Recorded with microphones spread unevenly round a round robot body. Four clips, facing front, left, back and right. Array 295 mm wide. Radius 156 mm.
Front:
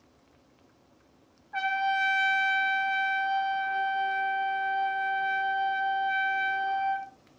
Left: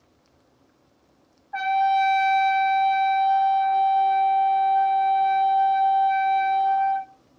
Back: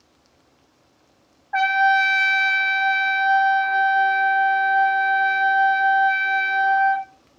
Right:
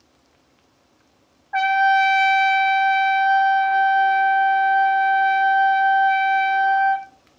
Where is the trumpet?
170° right, 1.5 m.